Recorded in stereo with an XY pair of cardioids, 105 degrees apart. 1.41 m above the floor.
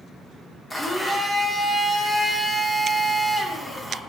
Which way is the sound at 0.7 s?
10° left.